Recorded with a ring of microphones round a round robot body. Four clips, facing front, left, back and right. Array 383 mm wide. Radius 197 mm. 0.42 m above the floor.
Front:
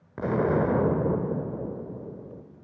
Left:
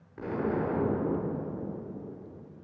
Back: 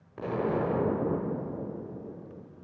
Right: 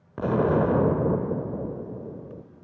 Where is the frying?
No frying in this recording.